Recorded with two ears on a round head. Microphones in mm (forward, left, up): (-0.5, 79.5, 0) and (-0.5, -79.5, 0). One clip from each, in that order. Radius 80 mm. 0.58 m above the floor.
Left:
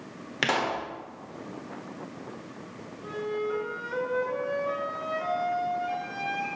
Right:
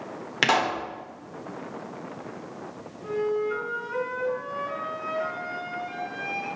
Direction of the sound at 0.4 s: 20° right (ahead or behind).